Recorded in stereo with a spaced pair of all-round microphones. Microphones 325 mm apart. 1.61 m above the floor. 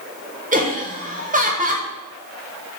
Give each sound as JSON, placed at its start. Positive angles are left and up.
{"t": 0.5, "sound": "laughter", "side_deg": -25, "distance_m": 0.5}